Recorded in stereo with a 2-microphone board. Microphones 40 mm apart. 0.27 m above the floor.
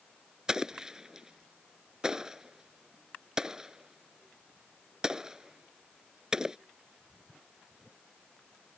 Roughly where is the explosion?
Centre.